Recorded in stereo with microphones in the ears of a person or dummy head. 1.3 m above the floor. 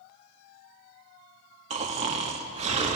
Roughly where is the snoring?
Right.